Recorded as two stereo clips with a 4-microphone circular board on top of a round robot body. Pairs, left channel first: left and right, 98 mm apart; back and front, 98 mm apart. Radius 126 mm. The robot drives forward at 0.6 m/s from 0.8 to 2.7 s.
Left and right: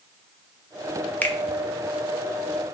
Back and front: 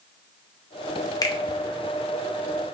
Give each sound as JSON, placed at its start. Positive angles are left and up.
{"t": 1.2, "sound": "a finger snap", "azimuth_deg": 155, "distance_m": 0.6}